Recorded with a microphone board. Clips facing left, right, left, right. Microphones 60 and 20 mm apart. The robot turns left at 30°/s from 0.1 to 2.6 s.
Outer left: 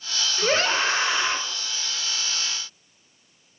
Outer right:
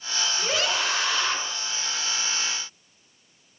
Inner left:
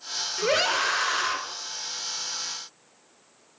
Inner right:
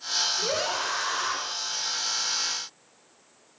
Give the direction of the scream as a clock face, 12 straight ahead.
10 o'clock.